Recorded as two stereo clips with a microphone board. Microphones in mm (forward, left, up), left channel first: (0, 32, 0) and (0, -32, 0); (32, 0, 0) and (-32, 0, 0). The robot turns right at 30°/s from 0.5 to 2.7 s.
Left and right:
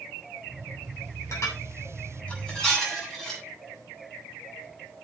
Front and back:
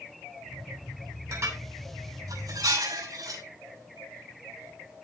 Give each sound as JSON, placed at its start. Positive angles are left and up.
{"t": 1.3, "sound": "dishes clattering", "azimuth_deg": 130, "distance_m": 8.0}